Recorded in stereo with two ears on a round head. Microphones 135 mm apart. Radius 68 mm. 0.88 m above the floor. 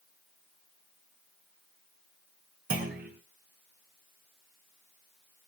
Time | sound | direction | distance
2.7 | a clunk | 65° right (ahead or behind) | 6 m